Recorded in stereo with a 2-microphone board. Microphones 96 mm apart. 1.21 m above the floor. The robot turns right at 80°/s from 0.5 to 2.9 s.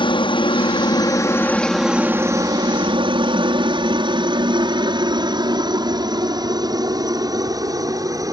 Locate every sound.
0.0 s a helicopter: 65° left (ahead or behind); by 8.3 s 40° right (ahead or behind)